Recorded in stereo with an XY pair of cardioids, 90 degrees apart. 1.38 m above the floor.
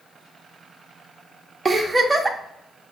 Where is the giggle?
25° right, 0.8 m.